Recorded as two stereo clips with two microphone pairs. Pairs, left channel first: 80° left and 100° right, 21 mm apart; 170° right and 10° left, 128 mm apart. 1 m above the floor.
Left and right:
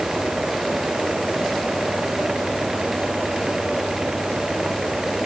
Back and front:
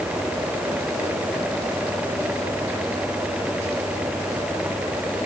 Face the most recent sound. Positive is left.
No sound to turn to.